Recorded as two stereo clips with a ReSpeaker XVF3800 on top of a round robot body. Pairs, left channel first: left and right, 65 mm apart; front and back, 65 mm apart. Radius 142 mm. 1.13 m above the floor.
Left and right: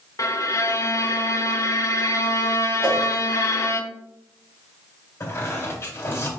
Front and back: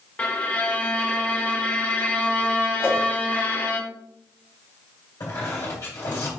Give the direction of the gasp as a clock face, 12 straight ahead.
No gasp in this recording.